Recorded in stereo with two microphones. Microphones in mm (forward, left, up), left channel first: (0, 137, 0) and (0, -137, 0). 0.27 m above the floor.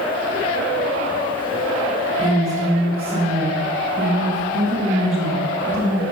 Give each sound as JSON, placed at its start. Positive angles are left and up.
{"t": 2.2, "sound": "a woman speaking", "side_deg": -5, "distance_m": 1.4}